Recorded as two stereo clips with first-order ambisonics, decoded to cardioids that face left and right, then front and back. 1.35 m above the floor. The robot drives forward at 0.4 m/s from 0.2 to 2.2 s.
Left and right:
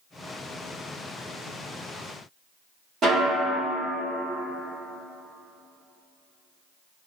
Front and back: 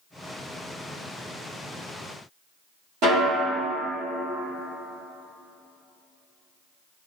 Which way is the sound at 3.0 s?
155° right.